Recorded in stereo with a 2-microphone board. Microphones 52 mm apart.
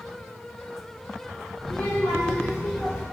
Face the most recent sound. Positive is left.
turn(degrees=15)  # may be behind; listen again after turning